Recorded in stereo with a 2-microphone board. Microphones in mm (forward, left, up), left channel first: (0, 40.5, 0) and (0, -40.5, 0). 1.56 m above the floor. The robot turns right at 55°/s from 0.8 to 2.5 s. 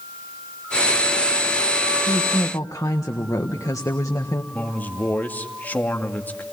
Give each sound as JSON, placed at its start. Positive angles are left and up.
{"t": 2.1, "sound": "a woman speaking", "side_deg": 65, "distance_m": 1.5}
{"t": 4.5, "sound": "a man speaking", "side_deg": 20, "distance_m": 2.0}